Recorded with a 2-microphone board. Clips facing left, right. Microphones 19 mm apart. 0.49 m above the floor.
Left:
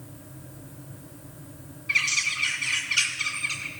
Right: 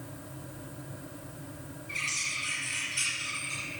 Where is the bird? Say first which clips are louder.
Left 9 dB; 50° left (ahead or behind), 2.5 m.